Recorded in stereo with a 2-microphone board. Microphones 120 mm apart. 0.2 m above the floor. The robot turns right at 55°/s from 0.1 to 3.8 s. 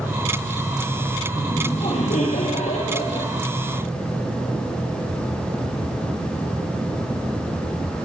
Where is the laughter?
35° left, 6.5 m; by 3.3 s 140° left, 6.5 m.